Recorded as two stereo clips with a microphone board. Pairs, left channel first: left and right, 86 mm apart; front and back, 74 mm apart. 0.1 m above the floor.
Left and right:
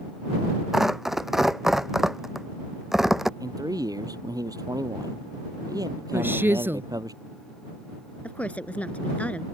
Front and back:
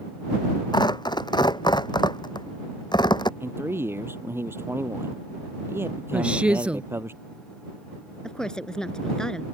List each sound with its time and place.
0.7 s tearing paper: 5° right
3.4 s a man speaking: 125° right
6.1 s a woman speaking: 120° right
8.2 s a woman speaking: 60° left